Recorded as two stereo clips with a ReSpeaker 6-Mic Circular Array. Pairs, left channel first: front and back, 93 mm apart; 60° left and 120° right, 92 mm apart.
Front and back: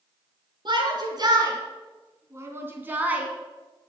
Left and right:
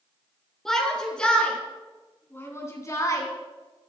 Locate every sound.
0.7 s a shout: 145° left, 4.5 m; by 3.3 s 105° left, 3 m